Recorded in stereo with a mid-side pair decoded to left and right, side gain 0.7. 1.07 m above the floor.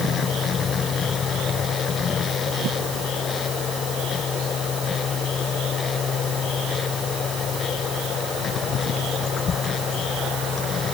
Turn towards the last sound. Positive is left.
turn(degrees=35)